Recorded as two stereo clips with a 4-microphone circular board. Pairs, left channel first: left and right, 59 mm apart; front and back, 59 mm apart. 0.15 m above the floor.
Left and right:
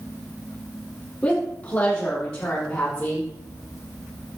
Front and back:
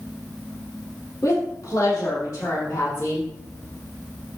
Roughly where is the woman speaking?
Ahead left.